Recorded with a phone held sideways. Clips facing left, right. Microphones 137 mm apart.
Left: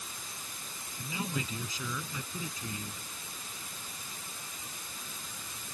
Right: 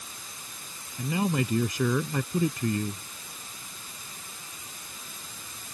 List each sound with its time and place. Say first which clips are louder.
1.0 s a man speaking: right 10 dB; 65° right (ahead or behind)